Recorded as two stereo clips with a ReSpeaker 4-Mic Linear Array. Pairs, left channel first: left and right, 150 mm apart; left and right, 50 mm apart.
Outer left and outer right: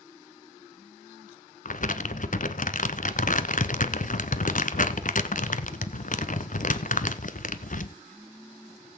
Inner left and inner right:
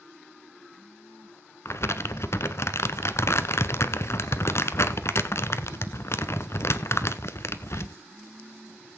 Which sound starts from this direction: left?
Crumpling, at 1.6 s.